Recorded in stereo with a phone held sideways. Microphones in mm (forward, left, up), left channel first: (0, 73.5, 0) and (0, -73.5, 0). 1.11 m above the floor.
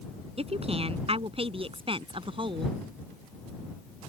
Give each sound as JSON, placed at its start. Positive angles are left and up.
{"t": 0.4, "sound": "a woman speaking", "side_deg": -40}